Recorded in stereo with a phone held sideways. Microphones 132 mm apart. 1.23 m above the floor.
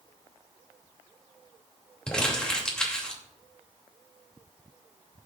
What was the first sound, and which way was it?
Crumpling, 5° left (ahead or behind).